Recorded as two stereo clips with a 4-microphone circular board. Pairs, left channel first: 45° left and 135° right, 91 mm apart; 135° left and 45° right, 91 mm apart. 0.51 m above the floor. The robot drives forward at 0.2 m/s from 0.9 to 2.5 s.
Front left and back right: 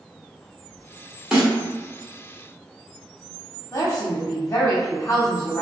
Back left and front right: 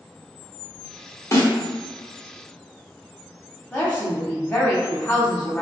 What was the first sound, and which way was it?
A snare drum, 150° left.